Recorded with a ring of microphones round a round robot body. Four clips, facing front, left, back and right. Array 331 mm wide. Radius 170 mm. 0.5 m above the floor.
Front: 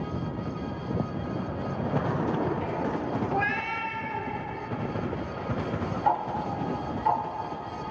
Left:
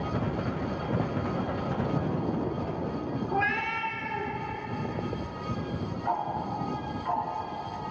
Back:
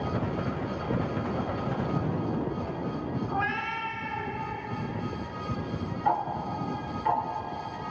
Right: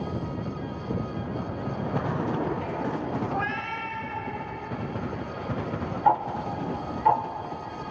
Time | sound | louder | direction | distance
3.3 | a cat meowing | left 1 dB, front 2 dB | 45° left | 2.5 m
6.0 | ticking | right 7 dB, front 1 dB | 100° right | 2 m